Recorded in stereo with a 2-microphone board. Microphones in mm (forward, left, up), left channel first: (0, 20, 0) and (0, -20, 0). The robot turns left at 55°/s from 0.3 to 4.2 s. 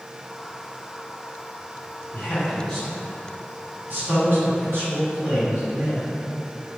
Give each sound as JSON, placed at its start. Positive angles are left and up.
{"t": 2.1, "sound": "a man speaking", "side_deg": 50, "distance_m": 1.9}